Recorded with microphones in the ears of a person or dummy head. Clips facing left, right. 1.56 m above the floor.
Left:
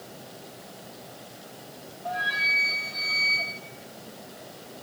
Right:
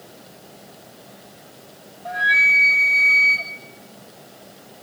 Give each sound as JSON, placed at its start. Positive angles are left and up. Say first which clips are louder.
{"t": 2.0, "sound": "a flute", "louder": "right 4 dB", "side_deg": -35, "distance_m": 1.8}